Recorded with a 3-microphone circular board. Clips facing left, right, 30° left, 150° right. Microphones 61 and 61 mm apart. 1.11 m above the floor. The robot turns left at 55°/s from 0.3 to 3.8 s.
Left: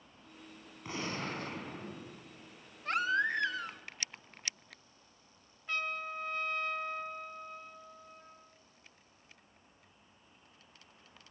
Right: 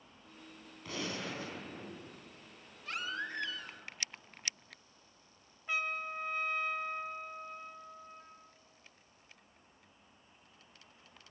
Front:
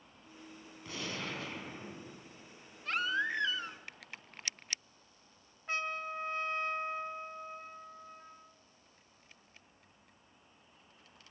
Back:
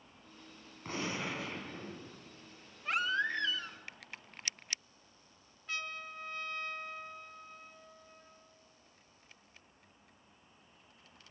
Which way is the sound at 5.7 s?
15° right.